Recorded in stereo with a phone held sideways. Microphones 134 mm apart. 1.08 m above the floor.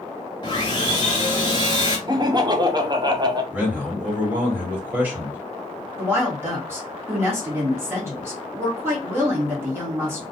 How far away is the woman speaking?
About 1.5 m.